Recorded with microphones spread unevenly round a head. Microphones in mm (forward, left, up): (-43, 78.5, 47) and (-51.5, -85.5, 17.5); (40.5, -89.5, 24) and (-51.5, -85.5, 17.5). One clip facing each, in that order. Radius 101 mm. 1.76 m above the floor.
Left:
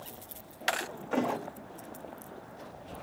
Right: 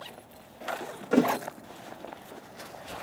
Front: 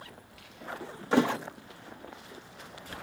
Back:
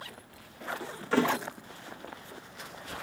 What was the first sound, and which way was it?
A thud, 45° right.